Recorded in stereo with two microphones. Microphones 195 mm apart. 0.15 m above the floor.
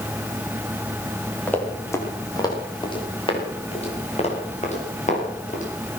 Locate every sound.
1.5 s running footsteps: 10° left (ahead or behind), 5.5 m; by 5.6 s 40° left (ahead or behind), 10 m